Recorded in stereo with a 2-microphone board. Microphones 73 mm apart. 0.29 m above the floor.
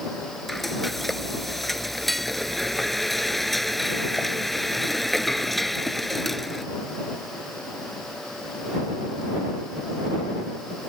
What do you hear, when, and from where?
0.5 s frying: centre (ahead or behind)